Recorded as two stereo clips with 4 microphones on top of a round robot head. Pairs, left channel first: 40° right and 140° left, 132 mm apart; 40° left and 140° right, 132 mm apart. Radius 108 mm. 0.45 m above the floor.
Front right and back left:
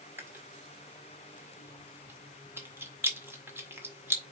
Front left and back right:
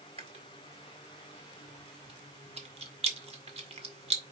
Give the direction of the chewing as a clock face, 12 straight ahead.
5 o'clock.